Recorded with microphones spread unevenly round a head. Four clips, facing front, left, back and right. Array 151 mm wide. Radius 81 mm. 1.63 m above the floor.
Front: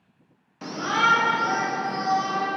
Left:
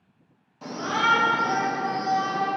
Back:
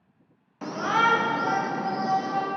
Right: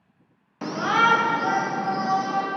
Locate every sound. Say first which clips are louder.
0.6 s a shout: right 4 dB, even; 70° right, 1.4 m; by 2.5 s 115° right, 2.5 m